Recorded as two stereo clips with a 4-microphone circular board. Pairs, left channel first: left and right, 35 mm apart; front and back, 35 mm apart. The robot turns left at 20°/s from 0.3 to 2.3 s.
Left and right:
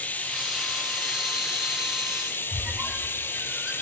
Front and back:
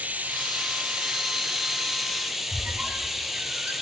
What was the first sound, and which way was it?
Running water, 135° left.